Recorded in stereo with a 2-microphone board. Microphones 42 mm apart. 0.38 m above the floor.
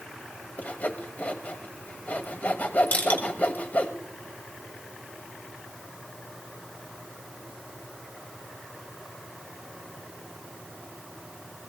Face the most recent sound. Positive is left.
turn(degrees=50)  # may be behind; listen again after turning